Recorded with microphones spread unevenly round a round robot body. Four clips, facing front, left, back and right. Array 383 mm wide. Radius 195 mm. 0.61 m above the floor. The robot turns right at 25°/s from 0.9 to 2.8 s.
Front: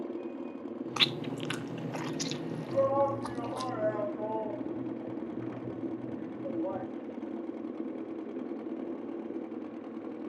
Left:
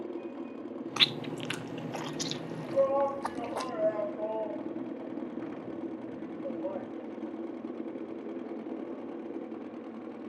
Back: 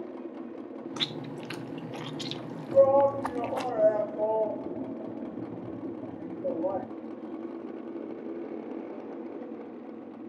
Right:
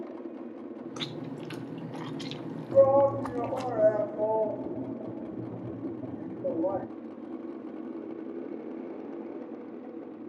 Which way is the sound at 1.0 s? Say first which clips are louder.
Left 3 dB, front 4 dB; 75° left.